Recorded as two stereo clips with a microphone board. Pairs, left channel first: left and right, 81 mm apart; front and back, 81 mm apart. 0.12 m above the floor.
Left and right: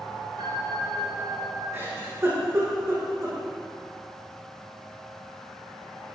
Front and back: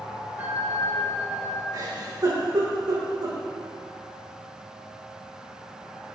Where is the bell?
110° right, 1.0 m.